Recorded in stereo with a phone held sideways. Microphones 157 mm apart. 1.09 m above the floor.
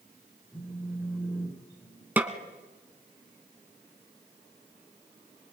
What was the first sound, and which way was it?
A phone buzzing, 10° right (ahead or behind).